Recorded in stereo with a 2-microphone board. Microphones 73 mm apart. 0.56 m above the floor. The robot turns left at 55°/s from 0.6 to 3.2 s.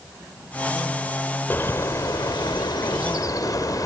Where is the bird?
150° left, 1.7 m; by 3.9 s 60° left, 1.7 m.